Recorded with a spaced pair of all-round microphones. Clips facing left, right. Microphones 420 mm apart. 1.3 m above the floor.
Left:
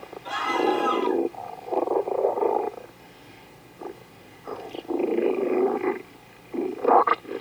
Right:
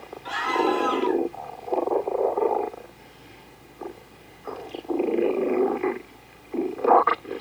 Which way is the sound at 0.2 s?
45° left (ahead or behind).